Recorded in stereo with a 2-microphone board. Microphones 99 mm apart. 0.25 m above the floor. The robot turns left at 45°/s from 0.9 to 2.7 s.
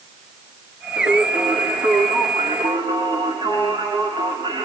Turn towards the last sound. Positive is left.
turn(degrees=-130)